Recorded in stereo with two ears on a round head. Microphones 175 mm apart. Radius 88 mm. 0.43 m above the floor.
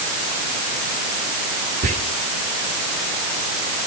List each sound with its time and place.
1.8 s whispering: 40° right (ahead or behind), 1.2 m